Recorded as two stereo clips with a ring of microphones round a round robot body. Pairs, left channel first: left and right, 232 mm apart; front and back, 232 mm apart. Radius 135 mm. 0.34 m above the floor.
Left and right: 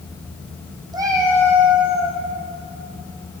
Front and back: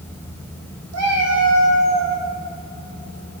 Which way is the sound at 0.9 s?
165° right.